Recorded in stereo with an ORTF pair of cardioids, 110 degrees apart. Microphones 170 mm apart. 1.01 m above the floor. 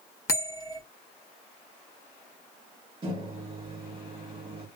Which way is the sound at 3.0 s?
35° right.